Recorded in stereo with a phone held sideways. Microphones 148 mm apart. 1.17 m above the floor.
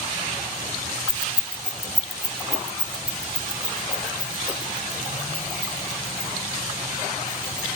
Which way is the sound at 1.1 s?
60° left (ahead or behind).